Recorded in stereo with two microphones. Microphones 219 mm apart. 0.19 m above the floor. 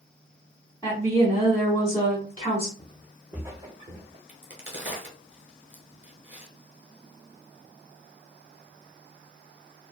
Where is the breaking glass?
I don't hear breaking glass.